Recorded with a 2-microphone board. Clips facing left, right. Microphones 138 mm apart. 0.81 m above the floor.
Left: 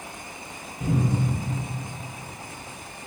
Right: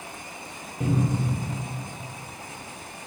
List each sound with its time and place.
0.8 s a cupboard door: 55° right (ahead or behind), 0.8 m